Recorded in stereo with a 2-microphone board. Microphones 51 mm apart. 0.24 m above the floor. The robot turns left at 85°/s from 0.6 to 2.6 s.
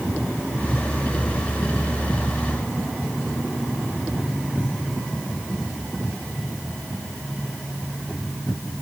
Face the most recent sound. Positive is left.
No sound to turn to.